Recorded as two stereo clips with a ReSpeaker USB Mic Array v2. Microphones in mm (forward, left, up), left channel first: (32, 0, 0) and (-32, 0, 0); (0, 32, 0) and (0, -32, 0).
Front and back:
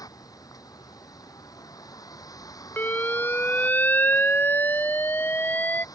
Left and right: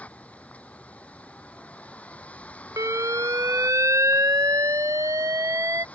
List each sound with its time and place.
0.0 s a vehicle: 20° left
2.8 s an alarm: 55° right